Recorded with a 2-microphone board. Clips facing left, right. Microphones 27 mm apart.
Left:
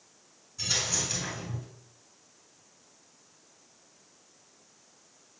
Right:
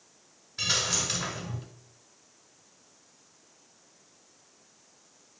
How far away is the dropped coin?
About 3 m.